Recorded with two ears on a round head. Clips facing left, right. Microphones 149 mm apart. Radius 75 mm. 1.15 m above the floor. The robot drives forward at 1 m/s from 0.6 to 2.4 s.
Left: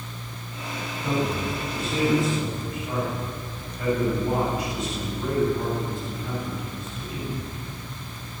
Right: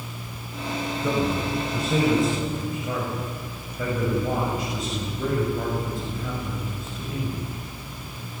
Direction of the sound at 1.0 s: 85° right.